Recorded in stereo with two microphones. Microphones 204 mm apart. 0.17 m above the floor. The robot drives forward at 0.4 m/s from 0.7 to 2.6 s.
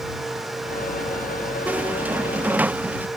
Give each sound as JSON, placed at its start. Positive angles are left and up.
{"t": 1.7, "sound": "a squeak", "side_deg": -5}